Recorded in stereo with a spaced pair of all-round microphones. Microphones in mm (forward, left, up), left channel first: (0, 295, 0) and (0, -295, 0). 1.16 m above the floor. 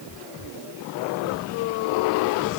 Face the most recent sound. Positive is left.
No sound to turn to.